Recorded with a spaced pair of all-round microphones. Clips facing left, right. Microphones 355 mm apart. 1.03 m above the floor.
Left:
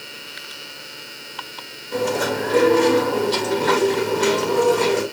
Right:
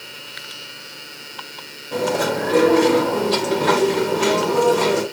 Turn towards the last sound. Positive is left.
turn(degrees=-70)  # may be behind; listen again after turning